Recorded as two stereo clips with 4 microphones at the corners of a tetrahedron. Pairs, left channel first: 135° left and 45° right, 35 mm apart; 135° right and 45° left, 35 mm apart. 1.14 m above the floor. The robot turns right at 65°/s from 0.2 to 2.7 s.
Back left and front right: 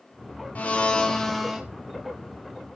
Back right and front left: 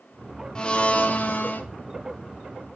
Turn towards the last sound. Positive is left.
turn(degrees=-55)